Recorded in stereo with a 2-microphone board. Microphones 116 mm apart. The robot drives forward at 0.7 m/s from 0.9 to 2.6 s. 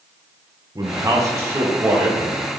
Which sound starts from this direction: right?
A man speaking, at 0.8 s.